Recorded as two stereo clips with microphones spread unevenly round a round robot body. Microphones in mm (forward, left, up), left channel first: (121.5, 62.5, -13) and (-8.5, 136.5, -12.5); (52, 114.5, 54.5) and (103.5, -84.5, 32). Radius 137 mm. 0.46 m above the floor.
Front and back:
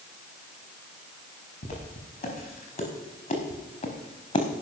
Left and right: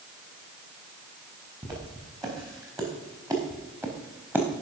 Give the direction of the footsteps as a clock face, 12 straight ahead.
12 o'clock.